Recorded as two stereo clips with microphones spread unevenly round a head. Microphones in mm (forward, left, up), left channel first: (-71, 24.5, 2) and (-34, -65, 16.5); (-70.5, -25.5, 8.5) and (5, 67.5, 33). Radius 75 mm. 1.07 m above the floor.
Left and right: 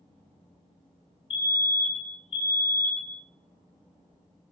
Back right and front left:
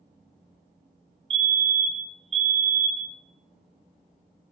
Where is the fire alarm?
90° left, 2.5 m.